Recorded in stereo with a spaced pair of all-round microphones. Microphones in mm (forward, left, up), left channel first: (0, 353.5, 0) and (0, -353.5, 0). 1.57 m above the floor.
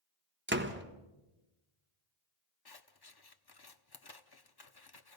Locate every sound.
0.5 s a door slam: 15° right (ahead or behind), 1.2 m
2.6 s scissors: 35° left (ahead or behind), 0.8 m